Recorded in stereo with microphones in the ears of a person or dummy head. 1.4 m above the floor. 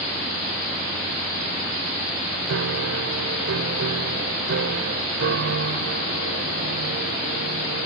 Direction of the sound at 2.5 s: 65° right (ahead or behind).